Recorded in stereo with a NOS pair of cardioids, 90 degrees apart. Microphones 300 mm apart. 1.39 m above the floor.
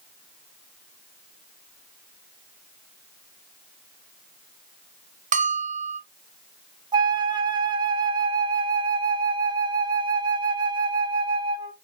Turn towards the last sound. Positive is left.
turn(degrees=-15)